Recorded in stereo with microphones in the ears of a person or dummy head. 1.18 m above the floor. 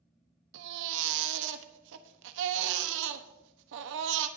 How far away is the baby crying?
About 1.1 m.